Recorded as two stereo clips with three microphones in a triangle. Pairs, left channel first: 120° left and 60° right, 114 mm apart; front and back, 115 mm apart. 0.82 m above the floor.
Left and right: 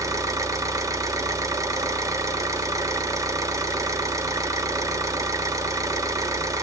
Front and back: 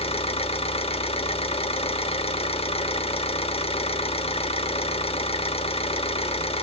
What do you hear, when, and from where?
0.0 s an engine running: 5° right, 0.7 m